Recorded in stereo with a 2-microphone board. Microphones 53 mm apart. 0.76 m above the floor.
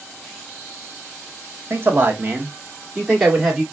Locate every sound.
1.7 s a man speaking: 40° right (ahead or behind), 1.5 m; by 3.6 s 10° right (ahead or behind), 2 m